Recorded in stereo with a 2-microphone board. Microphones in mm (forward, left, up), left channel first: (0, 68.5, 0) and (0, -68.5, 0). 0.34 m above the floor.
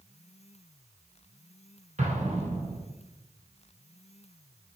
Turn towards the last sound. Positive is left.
turn(degrees=-60)  # may be behind; listen again after turning